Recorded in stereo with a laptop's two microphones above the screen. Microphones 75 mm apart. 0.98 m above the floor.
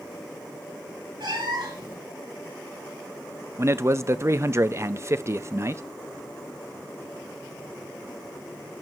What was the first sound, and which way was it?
A cat meowing, 80° right.